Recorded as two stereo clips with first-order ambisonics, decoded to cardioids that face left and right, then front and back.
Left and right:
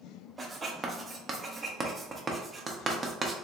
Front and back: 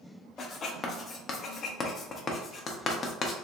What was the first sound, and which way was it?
Writing, 30° right.